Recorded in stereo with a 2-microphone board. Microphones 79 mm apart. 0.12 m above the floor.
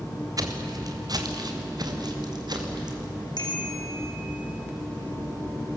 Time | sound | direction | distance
0.4 | footsteps | 50° right (ahead or behind) | 2.5 m
3.4 | a bicycle bell | 65° left (ahead or behind) | 5 m